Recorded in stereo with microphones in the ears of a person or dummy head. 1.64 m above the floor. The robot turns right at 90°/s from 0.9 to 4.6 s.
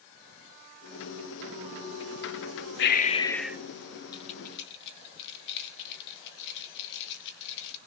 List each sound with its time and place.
2.8 s breathing: 125° left, 0.8 m; by 3.6 s 165° right, 0.8 m
4.1 s keys jangling: 25° left (ahead or behind), 2 m; by 7.8 s 65° left (ahead or behind), 2 m